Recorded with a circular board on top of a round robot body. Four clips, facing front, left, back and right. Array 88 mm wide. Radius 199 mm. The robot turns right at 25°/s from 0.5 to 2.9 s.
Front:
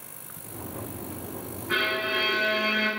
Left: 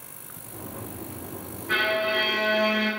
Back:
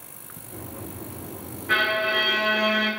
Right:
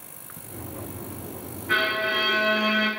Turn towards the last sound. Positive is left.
turn(degrees=-140)